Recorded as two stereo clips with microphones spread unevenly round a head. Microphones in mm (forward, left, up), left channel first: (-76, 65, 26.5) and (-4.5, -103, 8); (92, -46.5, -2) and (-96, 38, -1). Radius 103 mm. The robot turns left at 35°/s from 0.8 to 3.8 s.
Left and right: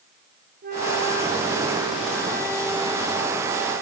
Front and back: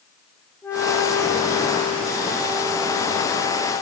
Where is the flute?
105° right, 8.5 m; by 3.8 s 150° left, 8.5 m.